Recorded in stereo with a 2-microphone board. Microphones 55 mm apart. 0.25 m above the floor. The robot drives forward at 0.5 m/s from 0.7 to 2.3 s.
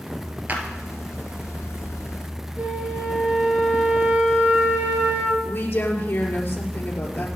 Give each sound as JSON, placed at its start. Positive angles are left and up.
{"t": 0.5, "sound": "a clap", "side_deg": -35, "distance_m": 4.0}
{"t": 2.6, "sound": "a flute", "side_deg": -35, "distance_m": 4.0}
{"t": 5.4, "sound": "a woman speaking", "side_deg": 35, "distance_m": 5.0}